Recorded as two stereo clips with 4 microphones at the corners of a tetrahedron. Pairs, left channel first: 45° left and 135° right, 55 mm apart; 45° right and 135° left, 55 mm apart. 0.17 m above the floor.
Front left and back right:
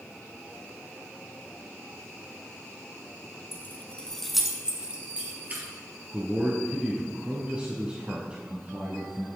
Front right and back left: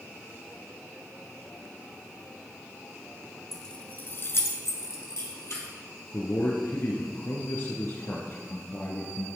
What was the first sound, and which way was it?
Keys jangling, 40° left.